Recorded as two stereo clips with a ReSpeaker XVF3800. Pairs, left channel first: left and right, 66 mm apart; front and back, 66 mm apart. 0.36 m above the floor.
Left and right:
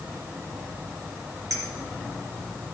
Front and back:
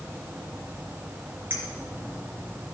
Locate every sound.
1.5 s a clink: 125° right, 3.5 m